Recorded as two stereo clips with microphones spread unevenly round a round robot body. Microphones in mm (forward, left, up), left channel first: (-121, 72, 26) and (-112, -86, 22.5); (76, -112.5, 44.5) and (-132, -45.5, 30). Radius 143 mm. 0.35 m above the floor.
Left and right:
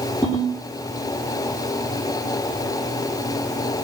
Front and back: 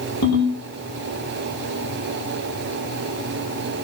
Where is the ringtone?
Straight ahead, 8 m.